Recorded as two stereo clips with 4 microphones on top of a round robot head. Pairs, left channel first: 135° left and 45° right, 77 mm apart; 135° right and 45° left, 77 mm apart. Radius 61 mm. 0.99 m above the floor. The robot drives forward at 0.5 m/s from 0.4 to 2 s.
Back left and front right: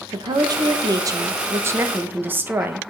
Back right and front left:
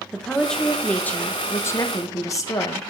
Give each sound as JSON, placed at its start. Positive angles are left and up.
{"t": 0.1, "sound": "a woman speaking", "azimuth_deg": -55, "distance_m": 1.3}